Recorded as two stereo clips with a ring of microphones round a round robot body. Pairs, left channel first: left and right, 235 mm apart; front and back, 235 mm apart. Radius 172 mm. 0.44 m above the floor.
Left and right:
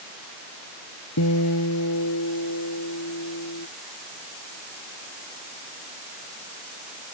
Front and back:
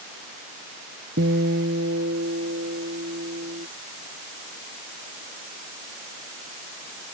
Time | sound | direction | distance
1.2 | a guitar | 125° left | ?